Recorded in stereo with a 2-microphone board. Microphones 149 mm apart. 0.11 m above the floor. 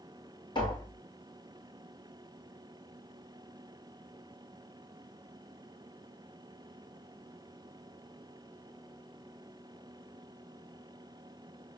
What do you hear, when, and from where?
0.6 s tapping: 30° left (ahead or behind), 4 m